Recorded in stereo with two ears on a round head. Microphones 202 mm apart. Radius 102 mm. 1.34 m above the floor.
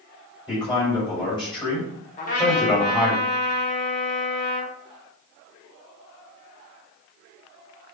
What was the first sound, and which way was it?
A man speaking, 15° left (ahead or behind).